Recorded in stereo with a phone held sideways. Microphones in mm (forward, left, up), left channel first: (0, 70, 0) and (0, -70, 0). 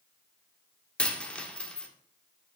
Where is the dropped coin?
10° left (ahead or behind), 1.4 m.